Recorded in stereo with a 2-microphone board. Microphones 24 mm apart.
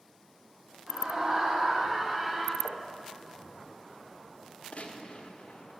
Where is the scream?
45° right (ahead or behind), 1.9 m; by 2.5 s 15° right (ahead or behind), 1.9 m.